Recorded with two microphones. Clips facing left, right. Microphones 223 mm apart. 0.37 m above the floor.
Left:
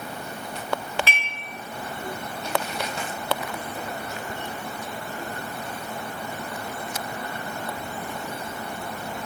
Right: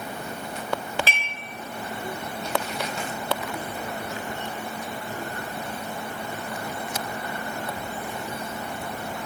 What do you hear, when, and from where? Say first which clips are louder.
1.1 s dishes clattering: right 1 dB; 35° right (ahead or behind), 0.8 m